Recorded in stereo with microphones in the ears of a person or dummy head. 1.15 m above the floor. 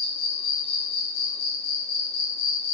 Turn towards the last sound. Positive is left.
turn(degrees=65)  # may be behind; listen again after turning